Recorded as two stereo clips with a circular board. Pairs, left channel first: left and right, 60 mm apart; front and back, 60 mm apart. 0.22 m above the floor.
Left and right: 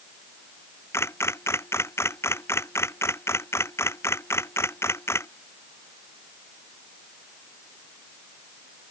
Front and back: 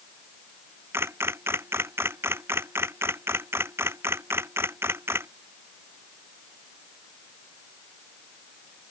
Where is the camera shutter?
135° left.